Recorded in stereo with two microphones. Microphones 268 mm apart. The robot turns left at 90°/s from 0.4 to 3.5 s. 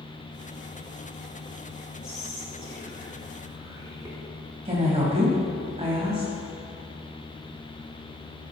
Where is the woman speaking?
25° right (ahead or behind), 1.7 m.